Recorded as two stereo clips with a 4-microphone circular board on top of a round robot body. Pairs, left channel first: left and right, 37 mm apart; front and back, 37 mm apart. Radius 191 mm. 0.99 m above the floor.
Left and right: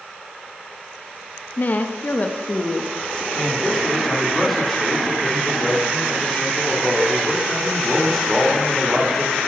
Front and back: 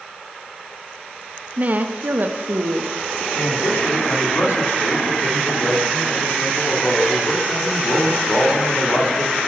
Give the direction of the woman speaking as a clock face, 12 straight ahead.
8 o'clock.